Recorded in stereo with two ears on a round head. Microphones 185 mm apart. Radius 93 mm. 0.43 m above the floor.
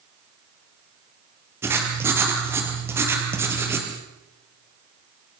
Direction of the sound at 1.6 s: 10° right (ahead or behind).